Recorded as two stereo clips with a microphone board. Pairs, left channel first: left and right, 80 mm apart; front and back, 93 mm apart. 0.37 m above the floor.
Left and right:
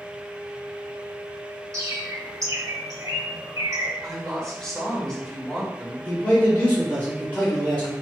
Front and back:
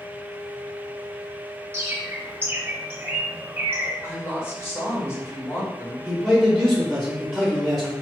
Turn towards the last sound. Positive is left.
turn(degrees=75)